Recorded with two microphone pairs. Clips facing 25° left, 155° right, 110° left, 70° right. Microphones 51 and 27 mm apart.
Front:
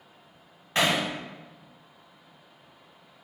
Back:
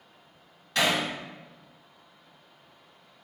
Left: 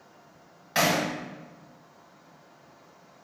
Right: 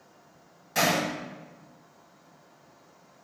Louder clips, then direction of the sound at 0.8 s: Front 1 dB, left 1 dB; 75° left.